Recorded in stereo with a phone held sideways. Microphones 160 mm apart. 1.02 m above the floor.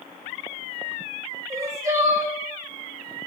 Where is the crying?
20° right (ahead or behind), 0.5 m.